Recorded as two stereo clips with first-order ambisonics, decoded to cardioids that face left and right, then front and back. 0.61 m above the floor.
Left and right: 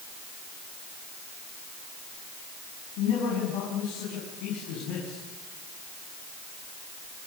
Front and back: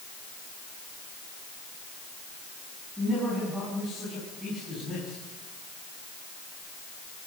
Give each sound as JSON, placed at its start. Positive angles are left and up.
{"t": 3.0, "sound": "a man speaking", "azimuth_deg": 95, "distance_m": 6.0}